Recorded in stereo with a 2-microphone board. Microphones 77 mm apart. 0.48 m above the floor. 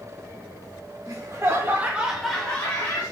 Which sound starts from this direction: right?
Laughter, at 1.1 s.